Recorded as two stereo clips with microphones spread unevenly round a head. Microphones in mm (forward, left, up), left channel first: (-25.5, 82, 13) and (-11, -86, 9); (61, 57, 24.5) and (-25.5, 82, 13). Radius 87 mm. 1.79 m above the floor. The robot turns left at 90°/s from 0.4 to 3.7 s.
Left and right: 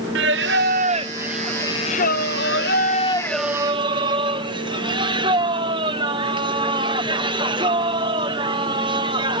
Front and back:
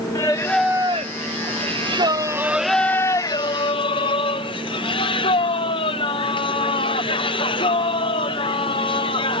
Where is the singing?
85° right; by 9.4 s 20° right.